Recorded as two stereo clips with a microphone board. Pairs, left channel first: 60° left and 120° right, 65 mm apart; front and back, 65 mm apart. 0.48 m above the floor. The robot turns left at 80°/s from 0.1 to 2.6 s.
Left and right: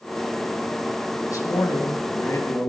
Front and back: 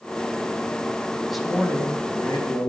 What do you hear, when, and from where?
1.3 s a man speaking: 95° left, 2.5 m; by 2.7 s 10° right, 2.5 m